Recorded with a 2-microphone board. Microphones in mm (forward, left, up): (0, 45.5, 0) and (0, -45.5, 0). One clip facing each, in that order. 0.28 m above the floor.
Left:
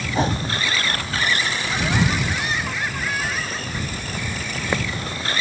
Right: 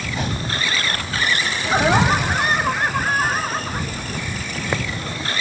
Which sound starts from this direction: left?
A whoosh, at 0.1 s.